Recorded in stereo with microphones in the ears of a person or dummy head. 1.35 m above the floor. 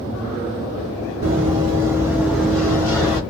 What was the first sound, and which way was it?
Running footsteps, 35° right (ahead or behind).